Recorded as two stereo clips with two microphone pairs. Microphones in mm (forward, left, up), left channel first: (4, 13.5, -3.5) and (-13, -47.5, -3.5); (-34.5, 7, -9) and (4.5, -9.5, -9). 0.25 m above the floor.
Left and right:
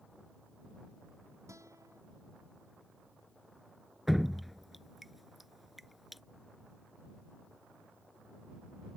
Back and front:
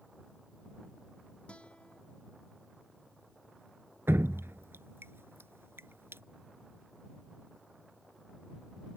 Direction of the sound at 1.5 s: 140° right.